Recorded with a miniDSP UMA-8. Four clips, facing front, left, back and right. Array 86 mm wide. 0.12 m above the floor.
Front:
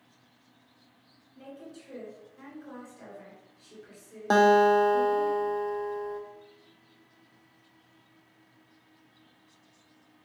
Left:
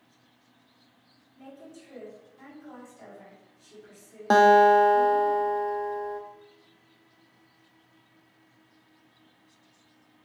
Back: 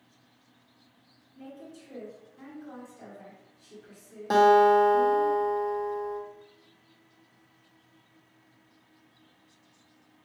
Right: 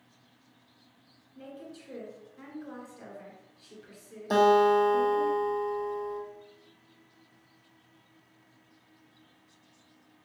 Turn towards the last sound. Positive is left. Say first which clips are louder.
# left 5 dB, back 1 dB
turn(degrees=65)